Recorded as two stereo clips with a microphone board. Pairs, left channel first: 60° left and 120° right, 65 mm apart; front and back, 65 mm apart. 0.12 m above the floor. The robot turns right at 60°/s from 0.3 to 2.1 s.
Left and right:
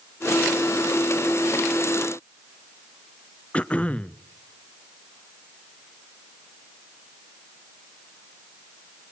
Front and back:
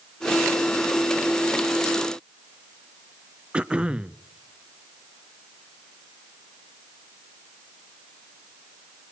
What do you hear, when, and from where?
3.5 s throat clearing: 115° left, 0.5 m